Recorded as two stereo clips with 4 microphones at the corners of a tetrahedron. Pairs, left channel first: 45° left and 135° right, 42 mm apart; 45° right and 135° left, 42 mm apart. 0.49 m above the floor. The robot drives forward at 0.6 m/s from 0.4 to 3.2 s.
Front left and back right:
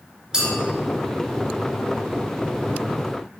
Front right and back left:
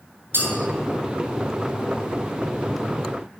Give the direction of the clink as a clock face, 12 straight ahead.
7 o'clock.